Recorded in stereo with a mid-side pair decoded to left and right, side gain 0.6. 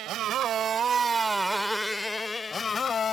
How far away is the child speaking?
No child speaking in this recording.